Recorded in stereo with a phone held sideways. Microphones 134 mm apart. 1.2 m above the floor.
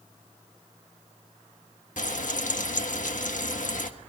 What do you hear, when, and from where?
2.0 s frying: 70° left (ahead or behind), 1.5 m